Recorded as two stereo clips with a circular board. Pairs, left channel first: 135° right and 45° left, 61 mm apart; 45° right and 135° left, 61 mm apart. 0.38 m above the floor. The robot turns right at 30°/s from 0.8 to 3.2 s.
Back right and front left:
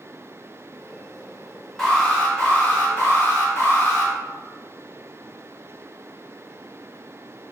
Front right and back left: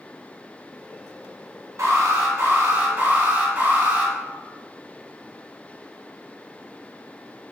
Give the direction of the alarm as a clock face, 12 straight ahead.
7 o'clock.